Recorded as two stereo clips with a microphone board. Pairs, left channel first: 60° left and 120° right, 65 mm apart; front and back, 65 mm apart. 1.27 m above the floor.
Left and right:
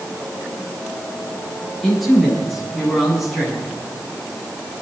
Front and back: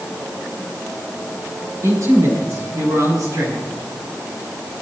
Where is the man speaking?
155° left, 9.5 m.